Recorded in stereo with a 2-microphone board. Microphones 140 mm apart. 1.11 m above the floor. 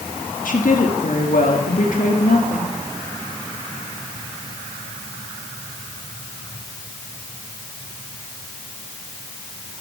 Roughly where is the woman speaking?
Left.